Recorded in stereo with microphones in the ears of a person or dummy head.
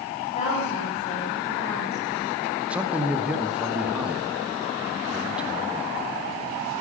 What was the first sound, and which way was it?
A woman speaking, 35° left (ahead or behind).